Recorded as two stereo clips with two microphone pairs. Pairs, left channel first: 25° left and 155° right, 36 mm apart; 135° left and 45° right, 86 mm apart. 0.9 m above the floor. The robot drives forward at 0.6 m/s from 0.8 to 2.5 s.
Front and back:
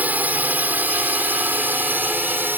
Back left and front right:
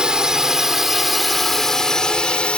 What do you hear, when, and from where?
0.0 s a drone: 125° right; by 2.6 s 150° right